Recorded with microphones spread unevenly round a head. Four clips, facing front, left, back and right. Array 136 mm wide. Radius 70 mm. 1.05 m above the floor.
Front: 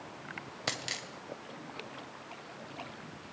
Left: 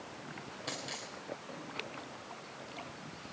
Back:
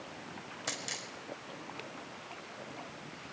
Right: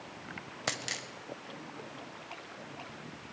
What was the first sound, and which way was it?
A dropped coin, 65° right.